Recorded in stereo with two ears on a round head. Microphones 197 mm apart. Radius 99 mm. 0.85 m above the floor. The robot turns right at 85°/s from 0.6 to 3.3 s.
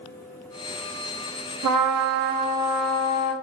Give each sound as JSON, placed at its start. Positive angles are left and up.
{"t": 1.6, "sound": "a trumpet", "azimuth_deg": -100, "distance_m": 1.0}